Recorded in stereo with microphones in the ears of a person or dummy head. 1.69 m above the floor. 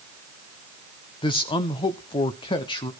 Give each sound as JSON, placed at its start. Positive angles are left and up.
{"t": 1.2, "sound": "a man speaking", "side_deg": 25, "distance_m": 1.1}